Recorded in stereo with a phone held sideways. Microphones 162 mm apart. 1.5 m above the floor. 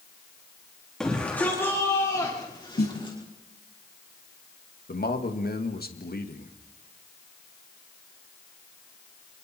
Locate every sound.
1.0 s a shout: 5° left (ahead or behind), 3.5 m; by 3.2 s 30° left (ahead or behind), 5 m
2.8 s a snare drum: 75° left (ahead or behind), 7.5 m
4.9 s a man speaking: 70° left (ahead or behind), 2 m